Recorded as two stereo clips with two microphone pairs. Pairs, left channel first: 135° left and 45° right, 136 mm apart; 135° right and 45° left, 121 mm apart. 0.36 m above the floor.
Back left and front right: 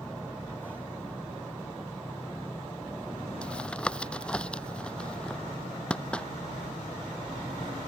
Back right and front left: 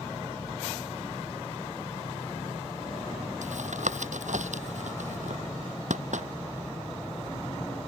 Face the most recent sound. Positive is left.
turn(degrees=50)